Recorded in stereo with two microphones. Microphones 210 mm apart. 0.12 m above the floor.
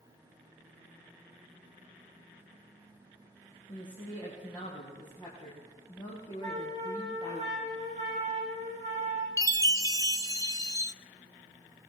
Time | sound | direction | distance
3.7 | a woman speaking | 20° left (ahead or behind) | 5.5 m
6.4 | a flute | 35° right (ahead or behind) | 4.5 m
9.4 | a chime | 15° right (ahead or behind) | 0.7 m